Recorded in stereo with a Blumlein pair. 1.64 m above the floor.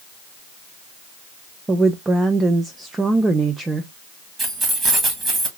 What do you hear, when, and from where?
1.7 s a woman speaking: 15° right, 0.5 m
4.4 s keys jangling: 20° right, 1.8 m